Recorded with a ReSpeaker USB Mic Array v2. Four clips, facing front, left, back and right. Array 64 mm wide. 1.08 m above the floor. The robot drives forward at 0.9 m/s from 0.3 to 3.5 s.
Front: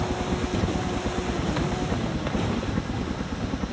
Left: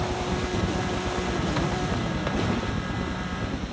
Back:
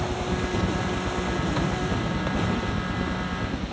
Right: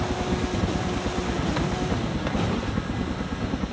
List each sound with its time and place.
0.0 s a helicopter: 50° right; by 3.7 s 60° right